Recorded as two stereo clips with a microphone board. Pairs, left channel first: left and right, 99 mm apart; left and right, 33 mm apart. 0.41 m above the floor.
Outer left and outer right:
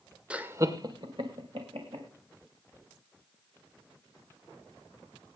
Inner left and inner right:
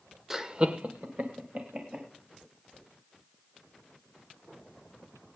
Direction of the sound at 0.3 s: 10° right (ahead or behind).